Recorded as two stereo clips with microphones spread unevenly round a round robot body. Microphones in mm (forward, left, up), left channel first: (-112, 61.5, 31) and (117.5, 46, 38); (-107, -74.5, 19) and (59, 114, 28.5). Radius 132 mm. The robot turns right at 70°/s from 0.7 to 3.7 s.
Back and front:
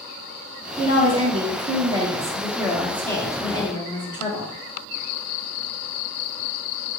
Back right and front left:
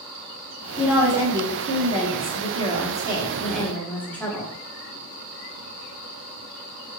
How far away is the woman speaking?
About 1.2 m.